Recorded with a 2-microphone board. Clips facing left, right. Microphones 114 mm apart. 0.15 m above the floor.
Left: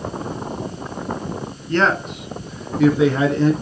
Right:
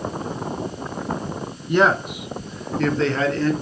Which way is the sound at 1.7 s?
15° right (ahead or behind).